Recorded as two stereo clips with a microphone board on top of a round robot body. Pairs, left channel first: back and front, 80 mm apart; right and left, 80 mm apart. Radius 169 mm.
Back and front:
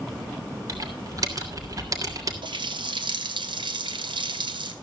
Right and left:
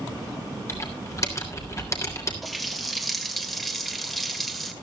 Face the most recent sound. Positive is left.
turn(degrees=0)